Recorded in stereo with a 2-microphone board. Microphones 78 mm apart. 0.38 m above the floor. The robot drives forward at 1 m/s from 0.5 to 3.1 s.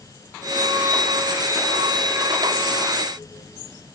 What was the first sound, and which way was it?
Only background noise.